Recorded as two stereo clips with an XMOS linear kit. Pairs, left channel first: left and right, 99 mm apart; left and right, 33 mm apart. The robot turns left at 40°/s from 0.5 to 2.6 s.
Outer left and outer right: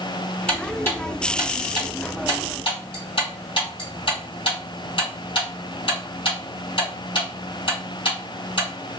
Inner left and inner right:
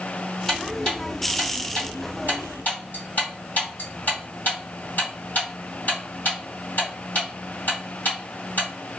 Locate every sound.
0.5 s ticking: 15° left (ahead or behind), 2.5 m; by 8.7 s 55° left (ahead or behind), 2.5 m